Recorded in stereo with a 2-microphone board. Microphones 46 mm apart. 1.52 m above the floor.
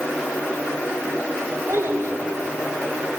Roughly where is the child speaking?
Right.